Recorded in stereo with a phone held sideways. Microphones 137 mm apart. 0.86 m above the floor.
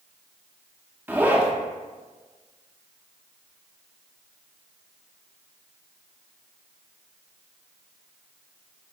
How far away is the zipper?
About 0.6 m.